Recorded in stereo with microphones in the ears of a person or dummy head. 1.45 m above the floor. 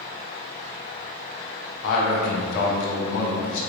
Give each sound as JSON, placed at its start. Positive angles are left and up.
{"t": 1.8, "sound": "a man speaking", "side_deg": 65, "distance_m": 0.7}